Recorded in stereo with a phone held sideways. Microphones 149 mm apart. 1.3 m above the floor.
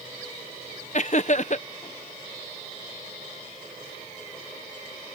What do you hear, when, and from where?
0.9 s laughter: 50° left (ahead or behind)